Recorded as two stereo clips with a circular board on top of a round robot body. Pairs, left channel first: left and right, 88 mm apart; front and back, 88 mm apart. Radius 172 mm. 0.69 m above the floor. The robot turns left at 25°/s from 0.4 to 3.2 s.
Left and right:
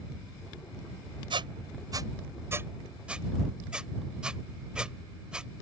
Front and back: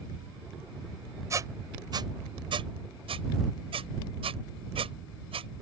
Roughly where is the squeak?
Behind right.